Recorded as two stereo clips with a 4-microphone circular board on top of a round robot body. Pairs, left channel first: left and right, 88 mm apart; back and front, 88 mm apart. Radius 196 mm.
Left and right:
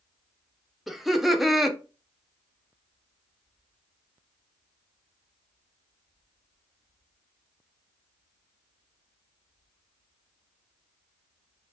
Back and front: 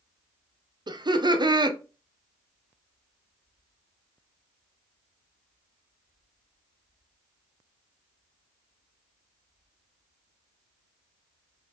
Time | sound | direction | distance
0.9 | laughter | straight ahead | 1.1 m